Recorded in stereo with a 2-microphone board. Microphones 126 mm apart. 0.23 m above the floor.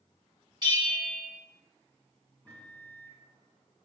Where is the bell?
35° right (ahead or behind), 1.6 m.